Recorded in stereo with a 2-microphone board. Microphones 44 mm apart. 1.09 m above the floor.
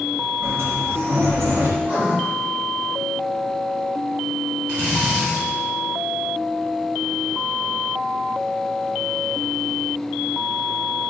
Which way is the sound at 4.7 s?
25° right (ahead or behind).